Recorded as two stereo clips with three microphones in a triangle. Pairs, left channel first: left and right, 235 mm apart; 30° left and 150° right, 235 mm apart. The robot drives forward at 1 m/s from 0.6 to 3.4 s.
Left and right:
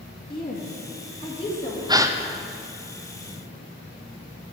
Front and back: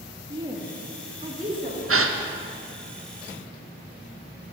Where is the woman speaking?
140° left, 2 m; by 1.8 s 155° left, 3 m.